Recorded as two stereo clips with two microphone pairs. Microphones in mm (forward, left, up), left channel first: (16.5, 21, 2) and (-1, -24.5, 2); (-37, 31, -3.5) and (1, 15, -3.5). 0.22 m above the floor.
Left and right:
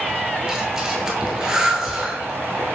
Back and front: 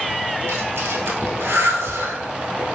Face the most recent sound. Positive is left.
turn(degrees=-30)